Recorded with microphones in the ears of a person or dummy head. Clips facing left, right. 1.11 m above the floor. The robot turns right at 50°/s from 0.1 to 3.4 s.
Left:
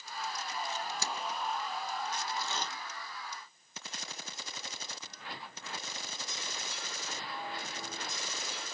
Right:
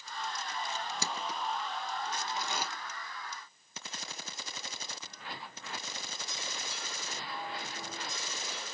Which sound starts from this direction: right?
Crushing, at 0.8 s.